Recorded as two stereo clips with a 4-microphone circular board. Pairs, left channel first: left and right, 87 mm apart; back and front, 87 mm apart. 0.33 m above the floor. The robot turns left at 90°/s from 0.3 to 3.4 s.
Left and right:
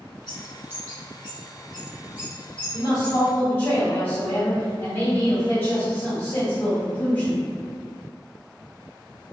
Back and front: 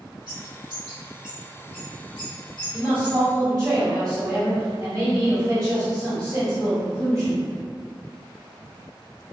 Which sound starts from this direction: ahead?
A bird, at 0.3 s.